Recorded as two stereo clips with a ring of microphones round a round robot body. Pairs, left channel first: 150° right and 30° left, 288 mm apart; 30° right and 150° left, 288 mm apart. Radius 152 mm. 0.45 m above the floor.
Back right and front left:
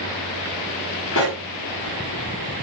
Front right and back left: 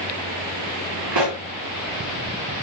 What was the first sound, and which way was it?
A pop, 165° left.